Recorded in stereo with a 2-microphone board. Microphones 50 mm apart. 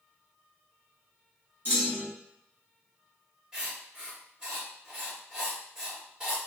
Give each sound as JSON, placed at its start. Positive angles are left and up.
{"t": 1.6, "sound": "a clunk", "side_deg": -45, "distance_m": 2.0}
{"t": 3.5, "sound": "writing", "side_deg": -20, "distance_m": 1.8}